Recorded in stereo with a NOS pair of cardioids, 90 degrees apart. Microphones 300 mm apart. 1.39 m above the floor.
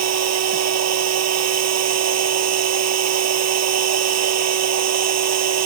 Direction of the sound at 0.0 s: 60° right.